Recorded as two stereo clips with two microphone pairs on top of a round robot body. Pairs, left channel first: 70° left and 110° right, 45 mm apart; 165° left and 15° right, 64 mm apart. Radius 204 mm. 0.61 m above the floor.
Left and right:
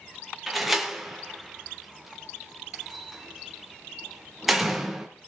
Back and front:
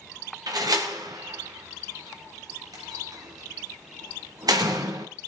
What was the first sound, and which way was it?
A door slam, 25° right.